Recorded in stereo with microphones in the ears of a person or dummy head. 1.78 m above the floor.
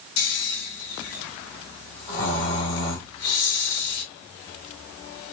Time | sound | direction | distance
0.2 | snoring | 70° left (ahead or behind) | 3 m